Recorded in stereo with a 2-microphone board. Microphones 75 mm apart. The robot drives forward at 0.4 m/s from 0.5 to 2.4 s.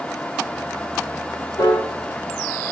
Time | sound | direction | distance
1.6 | a piano | 70° left (ahead or behind) | 4.5 m